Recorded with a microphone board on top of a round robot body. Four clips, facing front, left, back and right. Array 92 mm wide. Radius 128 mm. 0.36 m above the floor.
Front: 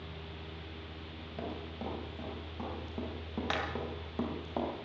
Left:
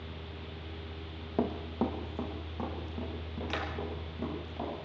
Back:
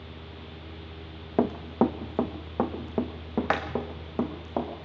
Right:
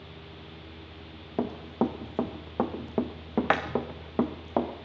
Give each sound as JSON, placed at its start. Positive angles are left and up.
{"t": 1.4, "sound": "running footsteps", "azimuth_deg": -175, "distance_m": 1.5}